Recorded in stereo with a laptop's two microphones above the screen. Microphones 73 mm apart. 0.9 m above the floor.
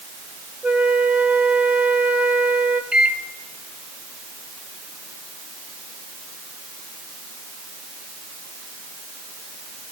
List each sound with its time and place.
0.6 s a flute: 20° right (ahead or behind), 1.0 m
2.9 s a microwave: 15° right (ahead or behind), 2 m